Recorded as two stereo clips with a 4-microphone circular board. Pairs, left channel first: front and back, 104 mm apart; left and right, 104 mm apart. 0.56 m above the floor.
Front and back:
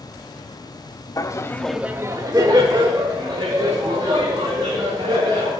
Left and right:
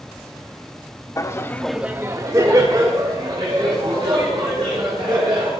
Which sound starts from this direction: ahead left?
Laughter, at 1.2 s.